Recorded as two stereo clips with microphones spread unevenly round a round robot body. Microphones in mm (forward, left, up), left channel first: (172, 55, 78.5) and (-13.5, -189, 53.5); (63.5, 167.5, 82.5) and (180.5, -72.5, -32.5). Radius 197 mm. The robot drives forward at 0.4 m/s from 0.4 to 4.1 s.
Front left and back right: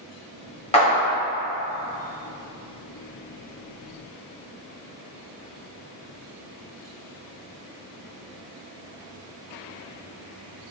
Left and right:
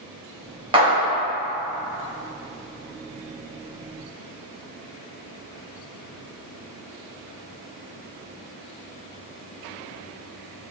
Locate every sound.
0.7 s a clap: 20° right, 1.3 m